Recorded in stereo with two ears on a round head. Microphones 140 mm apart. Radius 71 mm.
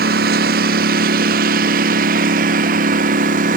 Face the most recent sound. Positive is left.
turn(degrees=-50)  # may be behind; listen again after turning